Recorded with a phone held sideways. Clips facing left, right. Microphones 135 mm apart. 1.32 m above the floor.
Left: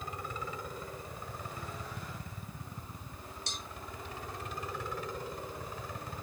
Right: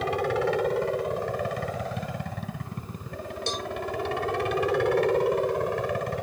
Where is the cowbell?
80° right.